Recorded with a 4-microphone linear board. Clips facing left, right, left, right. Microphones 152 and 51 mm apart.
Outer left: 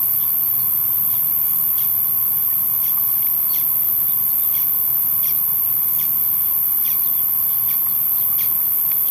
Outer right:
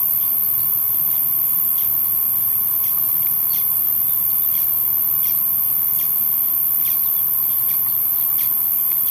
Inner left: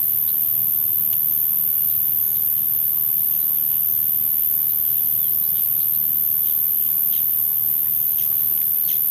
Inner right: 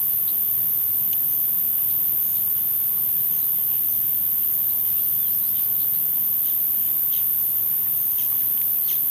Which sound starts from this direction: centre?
An insect, at 0.0 s.